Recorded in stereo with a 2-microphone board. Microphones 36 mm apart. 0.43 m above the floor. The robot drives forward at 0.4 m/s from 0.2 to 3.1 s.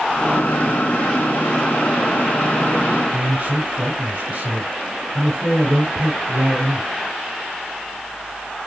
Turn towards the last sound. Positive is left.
turn(degrees=-75)  # may be behind; listen again after turning